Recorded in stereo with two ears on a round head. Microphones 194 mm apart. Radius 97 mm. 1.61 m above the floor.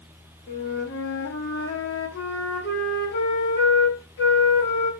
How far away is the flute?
About 1.4 m.